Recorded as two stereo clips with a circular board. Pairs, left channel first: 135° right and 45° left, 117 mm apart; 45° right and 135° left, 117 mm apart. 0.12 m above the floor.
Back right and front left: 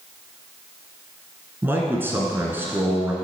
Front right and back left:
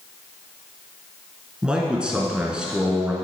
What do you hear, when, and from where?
1.6 s a man speaking: 70° left, 1.4 m